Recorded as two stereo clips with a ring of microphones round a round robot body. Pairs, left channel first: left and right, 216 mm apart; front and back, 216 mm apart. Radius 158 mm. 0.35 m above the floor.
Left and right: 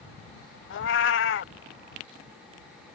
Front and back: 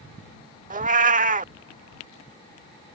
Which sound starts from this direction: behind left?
A cat meowing, at 0.7 s.